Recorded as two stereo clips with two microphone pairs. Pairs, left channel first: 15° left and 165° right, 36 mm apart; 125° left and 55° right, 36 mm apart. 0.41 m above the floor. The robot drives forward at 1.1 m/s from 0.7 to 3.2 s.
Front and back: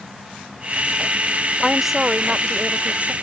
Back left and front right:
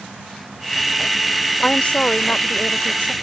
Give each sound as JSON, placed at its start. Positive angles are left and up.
{"t": 1.6, "sound": "a woman speaking", "azimuth_deg": 85}